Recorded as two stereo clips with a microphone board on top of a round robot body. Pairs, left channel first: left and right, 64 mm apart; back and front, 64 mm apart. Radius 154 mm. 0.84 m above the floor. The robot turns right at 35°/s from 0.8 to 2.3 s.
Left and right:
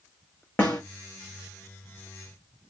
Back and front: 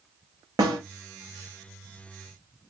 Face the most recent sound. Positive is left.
turn(degrees=80)